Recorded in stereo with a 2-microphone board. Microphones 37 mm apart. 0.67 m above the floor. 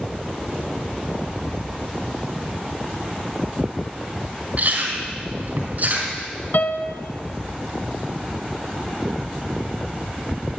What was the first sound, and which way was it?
Chewing, 50° right (ahead or behind).